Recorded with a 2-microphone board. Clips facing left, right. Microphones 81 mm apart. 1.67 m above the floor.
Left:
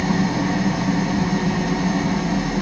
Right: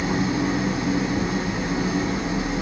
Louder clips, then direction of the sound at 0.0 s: Left 2 dB; 65° left (ahead or behind).